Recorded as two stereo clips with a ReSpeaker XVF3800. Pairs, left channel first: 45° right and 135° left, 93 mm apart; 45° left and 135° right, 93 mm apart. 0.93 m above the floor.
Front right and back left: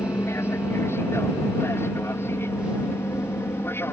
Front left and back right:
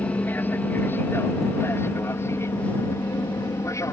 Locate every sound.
0.0 s an aircraft: 10° right; by 3.9 s 5° left